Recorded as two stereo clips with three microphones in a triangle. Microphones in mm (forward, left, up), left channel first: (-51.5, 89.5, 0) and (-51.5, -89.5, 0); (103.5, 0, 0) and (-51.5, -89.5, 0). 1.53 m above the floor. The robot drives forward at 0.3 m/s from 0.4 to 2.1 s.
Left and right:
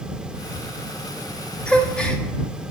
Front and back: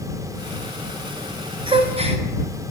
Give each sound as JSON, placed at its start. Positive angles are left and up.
{"t": 1.7, "sound": "a gasp", "azimuth_deg": 170, "distance_m": 0.7}